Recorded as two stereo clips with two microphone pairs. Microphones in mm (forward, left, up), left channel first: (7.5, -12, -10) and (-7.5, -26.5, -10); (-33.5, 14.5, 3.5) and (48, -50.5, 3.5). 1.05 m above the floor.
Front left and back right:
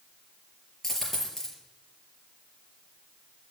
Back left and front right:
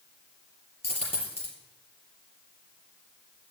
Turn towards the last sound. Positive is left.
turn(degrees=120)